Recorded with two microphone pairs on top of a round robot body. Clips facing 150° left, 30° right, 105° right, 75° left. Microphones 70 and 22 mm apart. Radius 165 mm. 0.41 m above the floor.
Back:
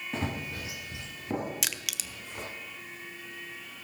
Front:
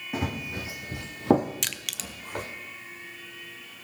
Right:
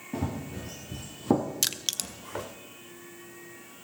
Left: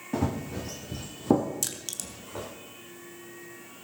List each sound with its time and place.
0.1 s running footsteps: 50° left, 1.8 m; by 2.5 s 70° right, 2 m
1.6 s crushing: 130° right, 1.0 m